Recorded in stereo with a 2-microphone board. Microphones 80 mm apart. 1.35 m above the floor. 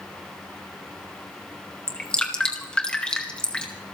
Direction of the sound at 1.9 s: 10° left (ahead or behind).